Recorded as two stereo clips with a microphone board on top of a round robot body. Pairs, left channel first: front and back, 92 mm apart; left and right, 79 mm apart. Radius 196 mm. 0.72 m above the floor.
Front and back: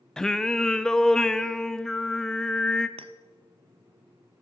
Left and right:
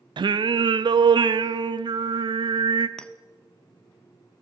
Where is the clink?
170° left, 0.6 m.